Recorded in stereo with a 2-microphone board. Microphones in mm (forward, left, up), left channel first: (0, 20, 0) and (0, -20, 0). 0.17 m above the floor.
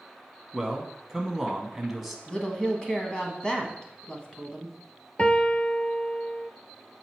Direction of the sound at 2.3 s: 20° left (ahead or behind).